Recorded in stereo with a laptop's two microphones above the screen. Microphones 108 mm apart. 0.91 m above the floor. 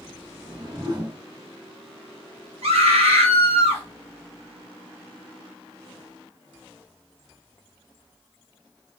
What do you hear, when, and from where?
0.3 s a whoosh: 40° right (ahead or behind), 1.0 m
2.6 s a scream: 65° right (ahead or behind), 1.4 m